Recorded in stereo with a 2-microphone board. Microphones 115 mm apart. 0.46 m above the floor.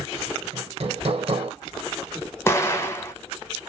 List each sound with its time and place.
0.5 s hammering: 60° right (ahead or behind), 1.0 m
2.5 s an explosion: 25° left (ahead or behind), 0.8 m